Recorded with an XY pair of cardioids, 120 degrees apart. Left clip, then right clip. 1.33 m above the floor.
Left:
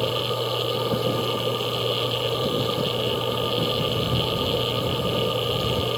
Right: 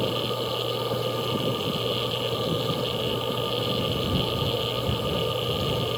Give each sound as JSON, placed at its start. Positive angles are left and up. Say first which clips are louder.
{"t": 0.0, "sound": "a machine running", "louder": "left 2 dB", "azimuth_deg": 15}